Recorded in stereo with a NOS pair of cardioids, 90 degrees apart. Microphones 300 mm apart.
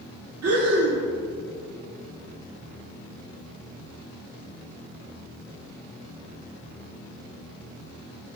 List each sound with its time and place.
0.4 s breathing: 55° right, 3.5 m